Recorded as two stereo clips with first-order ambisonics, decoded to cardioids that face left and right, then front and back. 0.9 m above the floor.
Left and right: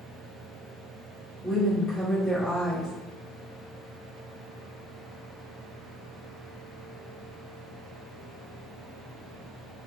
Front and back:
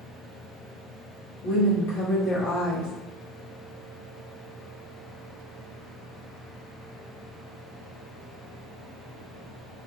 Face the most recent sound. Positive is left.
turn(degrees=15)